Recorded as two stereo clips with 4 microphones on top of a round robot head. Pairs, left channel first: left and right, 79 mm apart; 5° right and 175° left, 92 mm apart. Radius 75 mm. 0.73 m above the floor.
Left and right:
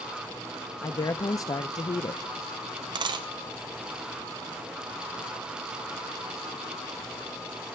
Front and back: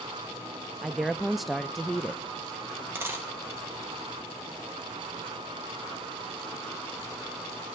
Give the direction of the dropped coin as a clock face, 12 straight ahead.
4 o'clock.